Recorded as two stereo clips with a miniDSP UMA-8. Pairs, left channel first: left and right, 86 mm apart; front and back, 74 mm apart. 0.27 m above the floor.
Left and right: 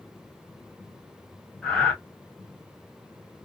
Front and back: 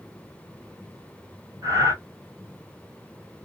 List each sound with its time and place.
1.6 s breathing: 175° left, 2 m